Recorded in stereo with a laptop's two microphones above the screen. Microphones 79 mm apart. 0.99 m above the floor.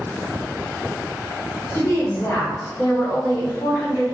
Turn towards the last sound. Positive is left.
turn(degrees=55)  # may be behind; listen again after turning